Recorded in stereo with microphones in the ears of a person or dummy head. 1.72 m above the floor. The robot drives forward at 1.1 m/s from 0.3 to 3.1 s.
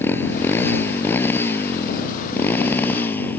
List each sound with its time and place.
0.0 s a motorcycle: 15° left (ahead or behind); by 3.4 s 10° left (ahead or behind)